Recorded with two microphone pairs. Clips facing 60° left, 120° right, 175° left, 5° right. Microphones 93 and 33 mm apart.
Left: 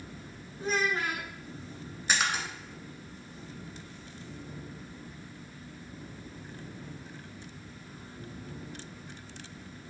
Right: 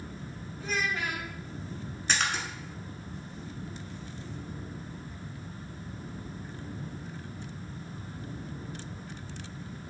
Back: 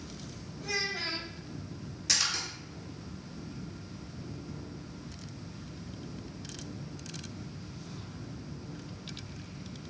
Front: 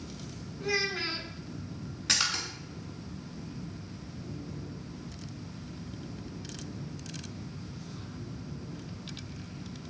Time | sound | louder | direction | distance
0.6 | a child speaking | left 3 dB, front 3 dB | 50° left | 0.8 m
2.1 | a splash | left 1 dB, front 2 dB | 20° right | 1.1 m